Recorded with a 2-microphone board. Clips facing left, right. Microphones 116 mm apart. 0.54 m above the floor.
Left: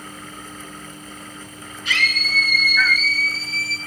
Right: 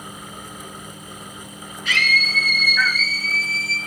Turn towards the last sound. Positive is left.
turn(degrees=-40)  # may be behind; listen again after turning